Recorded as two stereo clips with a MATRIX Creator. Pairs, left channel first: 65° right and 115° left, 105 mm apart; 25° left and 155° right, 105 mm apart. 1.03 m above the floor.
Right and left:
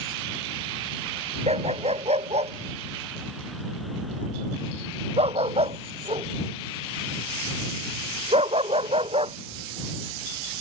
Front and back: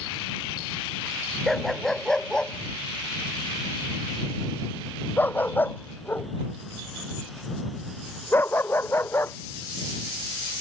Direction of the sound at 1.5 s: 110° left.